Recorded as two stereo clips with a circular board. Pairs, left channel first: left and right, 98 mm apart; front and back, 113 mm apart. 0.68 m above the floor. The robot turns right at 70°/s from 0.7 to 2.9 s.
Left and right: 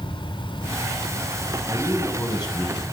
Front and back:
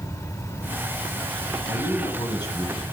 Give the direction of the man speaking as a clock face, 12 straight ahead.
12 o'clock.